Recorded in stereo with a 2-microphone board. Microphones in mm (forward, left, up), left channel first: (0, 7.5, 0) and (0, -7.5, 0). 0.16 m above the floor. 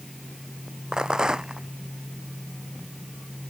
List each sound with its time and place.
0.9 s a rattle: 55° right (ahead or behind)